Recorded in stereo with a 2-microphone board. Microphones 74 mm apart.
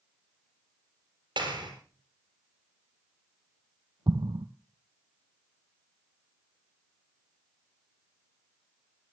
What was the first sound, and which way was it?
A clap, 75° right (ahead or behind).